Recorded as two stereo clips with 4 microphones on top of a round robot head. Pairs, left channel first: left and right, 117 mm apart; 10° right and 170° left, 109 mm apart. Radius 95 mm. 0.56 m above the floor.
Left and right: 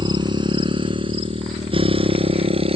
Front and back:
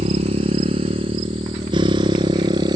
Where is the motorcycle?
140° right; by 2.8 s 130° right.